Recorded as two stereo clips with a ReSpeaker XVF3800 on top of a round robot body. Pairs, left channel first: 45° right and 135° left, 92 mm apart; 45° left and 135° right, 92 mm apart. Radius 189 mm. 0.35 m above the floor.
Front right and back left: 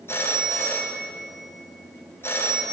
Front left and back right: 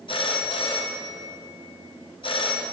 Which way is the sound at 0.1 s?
20° left.